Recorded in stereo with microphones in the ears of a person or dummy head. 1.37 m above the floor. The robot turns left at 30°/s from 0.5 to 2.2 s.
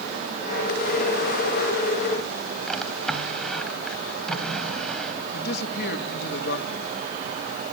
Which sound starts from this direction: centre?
A drawer, at 2.7 s.